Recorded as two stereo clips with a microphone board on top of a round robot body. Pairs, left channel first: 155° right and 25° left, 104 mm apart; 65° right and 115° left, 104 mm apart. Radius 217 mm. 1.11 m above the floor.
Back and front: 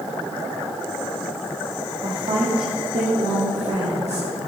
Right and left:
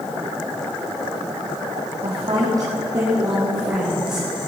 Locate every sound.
2.0 s a woman speaking: 75° left, 2.0 m; by 4.2 s 30° left, 4 m